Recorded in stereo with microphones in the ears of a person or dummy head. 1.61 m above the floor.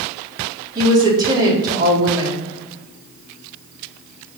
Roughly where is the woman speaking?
Right.